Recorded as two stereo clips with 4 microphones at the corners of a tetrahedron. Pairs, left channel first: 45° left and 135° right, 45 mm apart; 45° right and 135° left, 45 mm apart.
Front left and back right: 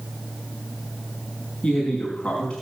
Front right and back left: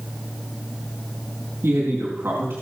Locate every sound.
1.6 s a man speaking: 115° left, 4.5 m